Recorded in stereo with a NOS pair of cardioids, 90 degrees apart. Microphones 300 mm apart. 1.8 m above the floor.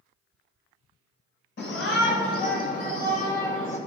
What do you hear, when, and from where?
1.6 s a shout: 45° left, 2.5 m; by 3.8 s 10° left, 2 m